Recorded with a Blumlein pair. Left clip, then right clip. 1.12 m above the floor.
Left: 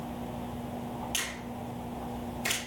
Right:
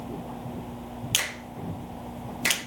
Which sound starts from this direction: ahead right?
A finger snap, at 1.1 s.